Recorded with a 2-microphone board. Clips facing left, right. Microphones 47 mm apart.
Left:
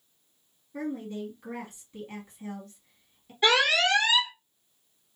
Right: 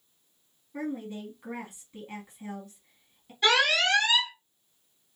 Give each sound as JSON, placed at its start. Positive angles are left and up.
{"t": 0.7, "sound": "a woman speaking", "side_deg": -10, "distance_m": 2.5}
{"t": 3.4, "sound": "an alarm", "side_deg": 15, "distance_m": 1.6}